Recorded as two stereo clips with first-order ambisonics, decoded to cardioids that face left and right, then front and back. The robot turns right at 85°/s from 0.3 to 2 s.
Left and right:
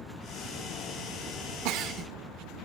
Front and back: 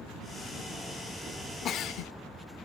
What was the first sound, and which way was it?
A giggle, 60° right.